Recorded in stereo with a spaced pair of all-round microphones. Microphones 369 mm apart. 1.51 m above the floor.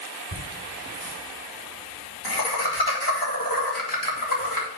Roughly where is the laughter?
Left.